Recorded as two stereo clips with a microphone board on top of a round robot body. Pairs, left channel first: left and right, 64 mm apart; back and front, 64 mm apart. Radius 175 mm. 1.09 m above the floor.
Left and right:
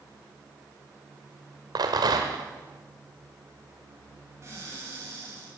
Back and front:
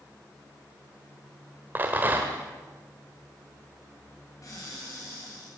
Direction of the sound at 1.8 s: 65° right.